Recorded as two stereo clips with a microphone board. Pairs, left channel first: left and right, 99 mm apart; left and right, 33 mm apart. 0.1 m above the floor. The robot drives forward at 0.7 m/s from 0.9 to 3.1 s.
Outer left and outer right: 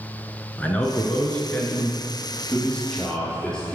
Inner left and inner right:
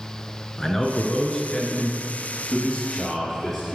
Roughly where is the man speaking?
Centre.